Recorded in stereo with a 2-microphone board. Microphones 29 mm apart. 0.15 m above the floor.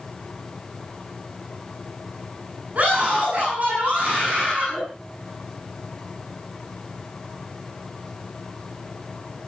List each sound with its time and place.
2.8 s a scream: 55° right (ahead or behind), 9.5 m